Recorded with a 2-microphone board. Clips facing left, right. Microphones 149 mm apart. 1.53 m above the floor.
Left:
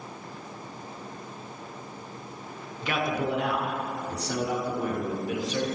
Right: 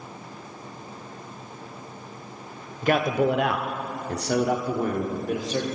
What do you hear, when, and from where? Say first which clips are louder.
2.8 s a man speaking: right 7 dB; 45° right (ahead or behind), 0.8 m; by 5.7 s 40° right (ahead or behind), 1.3 m